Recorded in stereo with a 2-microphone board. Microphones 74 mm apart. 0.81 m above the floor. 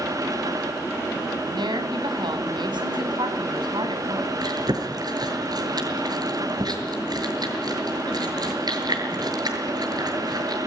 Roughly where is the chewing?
Right.